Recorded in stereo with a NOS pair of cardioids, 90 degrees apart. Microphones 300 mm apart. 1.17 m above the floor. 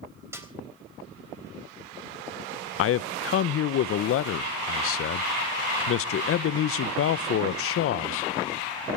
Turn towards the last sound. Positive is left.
turn(degrees=50)